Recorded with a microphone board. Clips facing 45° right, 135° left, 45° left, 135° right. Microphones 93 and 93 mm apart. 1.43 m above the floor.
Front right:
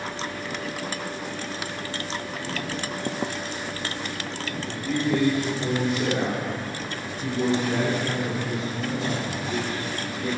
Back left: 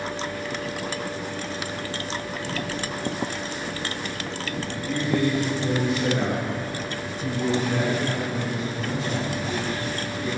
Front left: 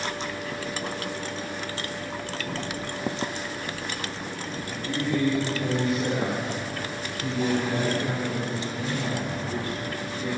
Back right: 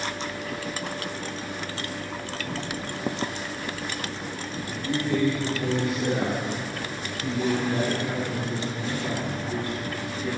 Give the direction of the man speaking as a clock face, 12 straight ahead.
3 o'clock.